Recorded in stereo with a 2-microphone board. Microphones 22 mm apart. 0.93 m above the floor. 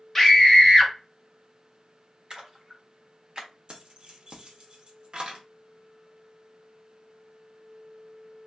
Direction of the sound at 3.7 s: 45° right (ahead or behind).